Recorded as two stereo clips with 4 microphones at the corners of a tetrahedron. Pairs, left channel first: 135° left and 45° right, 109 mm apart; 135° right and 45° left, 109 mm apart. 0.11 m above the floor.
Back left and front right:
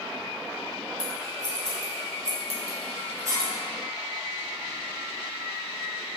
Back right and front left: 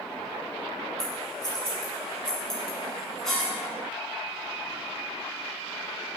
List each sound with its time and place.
1.0 s scissors: 55° right, 1.5 m